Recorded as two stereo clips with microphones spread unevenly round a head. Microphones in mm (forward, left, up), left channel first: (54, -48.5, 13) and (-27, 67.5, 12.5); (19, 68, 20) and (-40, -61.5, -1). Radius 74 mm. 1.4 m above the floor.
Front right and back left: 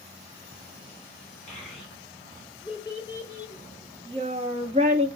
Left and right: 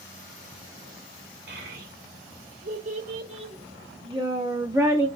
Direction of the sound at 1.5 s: 140° right.